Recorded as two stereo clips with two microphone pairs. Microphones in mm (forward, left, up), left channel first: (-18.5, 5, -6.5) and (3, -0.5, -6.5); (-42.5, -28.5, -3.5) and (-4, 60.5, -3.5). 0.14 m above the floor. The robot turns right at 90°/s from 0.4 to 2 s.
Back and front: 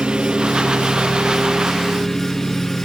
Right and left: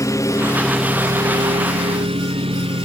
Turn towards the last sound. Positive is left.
turn(degrees=90)